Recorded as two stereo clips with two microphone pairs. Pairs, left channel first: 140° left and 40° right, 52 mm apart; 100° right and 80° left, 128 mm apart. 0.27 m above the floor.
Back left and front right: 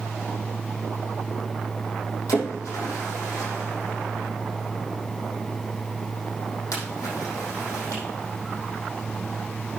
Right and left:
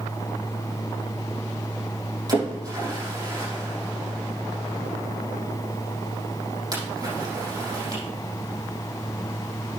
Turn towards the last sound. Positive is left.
turn(degrees=140)